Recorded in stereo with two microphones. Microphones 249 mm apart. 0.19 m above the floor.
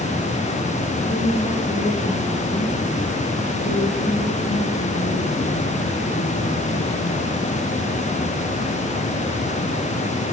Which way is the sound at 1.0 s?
25° left (ahead or behind).